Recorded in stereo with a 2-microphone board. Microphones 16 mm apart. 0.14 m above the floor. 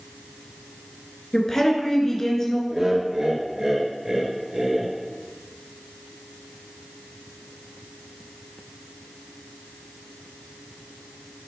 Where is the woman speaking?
25° left (ahead or behind), 2.5 m.